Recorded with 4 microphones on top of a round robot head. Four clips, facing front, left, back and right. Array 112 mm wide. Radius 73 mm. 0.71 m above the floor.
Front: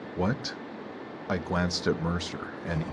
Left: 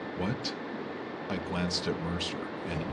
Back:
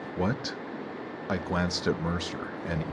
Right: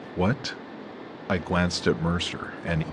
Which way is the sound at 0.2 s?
80° right.